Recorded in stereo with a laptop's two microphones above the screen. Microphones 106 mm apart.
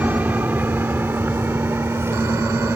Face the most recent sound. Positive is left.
turn(degrees=-25)  # may be behind; listen again after turning